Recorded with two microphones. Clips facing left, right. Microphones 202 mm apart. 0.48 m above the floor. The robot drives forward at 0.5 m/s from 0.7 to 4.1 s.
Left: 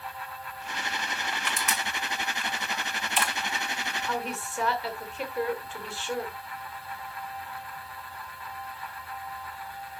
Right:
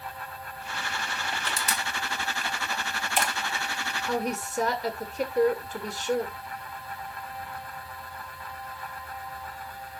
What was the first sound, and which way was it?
Crushing, 35° right (ahead or behind).